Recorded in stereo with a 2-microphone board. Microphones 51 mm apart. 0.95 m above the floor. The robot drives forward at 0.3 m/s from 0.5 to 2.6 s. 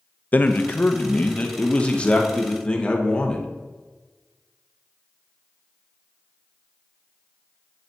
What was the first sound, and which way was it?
A man speaking, 35° left (ahead or behind).